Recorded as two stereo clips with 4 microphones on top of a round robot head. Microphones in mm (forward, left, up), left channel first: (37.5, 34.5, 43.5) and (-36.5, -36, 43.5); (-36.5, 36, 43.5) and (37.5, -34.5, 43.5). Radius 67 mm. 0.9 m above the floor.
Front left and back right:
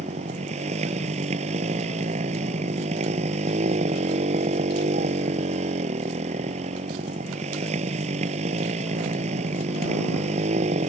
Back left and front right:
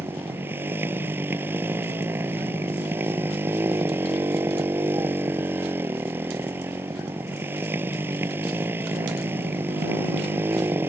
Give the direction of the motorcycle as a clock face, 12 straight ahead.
4 o'clock.